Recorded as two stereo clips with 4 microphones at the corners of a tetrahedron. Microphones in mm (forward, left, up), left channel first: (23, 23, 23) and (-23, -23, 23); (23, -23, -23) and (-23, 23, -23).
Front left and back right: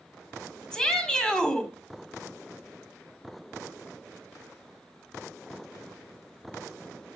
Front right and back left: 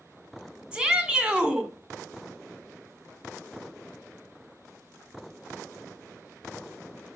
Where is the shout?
95° left, 1.4 m.